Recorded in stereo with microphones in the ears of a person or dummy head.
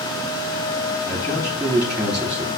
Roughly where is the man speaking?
Centre.